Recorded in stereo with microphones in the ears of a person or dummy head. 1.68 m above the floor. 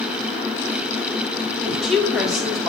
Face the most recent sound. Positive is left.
turn(degrees=0)  # may be behind; listen again after turning